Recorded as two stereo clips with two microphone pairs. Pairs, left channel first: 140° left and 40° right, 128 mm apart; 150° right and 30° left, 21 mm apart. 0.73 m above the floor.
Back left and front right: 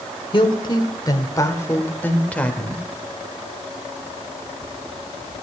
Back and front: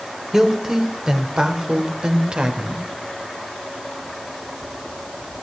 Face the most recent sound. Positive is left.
turn(degrees=55)